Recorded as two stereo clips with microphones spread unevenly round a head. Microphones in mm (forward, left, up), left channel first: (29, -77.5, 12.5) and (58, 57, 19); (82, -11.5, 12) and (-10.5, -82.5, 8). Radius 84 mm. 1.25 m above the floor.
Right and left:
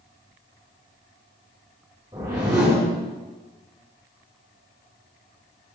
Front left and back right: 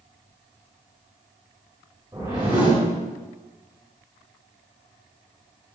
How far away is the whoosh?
About 3 m.